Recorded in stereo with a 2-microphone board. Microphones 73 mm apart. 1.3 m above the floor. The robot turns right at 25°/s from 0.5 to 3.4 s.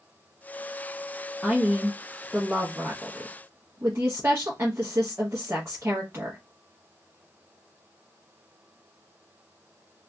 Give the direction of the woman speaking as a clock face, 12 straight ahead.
6 o'clock.